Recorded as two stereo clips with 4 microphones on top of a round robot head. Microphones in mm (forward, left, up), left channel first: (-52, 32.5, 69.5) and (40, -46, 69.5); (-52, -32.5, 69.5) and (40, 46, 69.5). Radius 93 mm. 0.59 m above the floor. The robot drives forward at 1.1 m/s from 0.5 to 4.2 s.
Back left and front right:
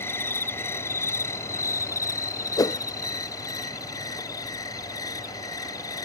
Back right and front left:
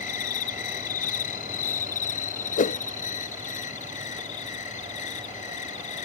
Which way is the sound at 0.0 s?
150° right.